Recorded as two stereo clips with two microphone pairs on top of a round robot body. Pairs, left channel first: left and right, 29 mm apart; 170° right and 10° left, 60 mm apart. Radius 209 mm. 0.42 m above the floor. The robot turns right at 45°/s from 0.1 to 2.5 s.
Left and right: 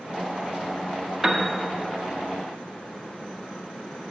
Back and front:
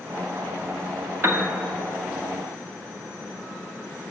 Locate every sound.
1.2 s a piano: 15° right, 1.6 m; by 1.5 s 5° right, 1.6 m